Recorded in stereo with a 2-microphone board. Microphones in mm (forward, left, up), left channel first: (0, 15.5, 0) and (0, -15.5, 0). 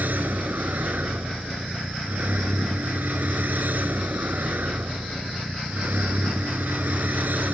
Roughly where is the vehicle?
Right.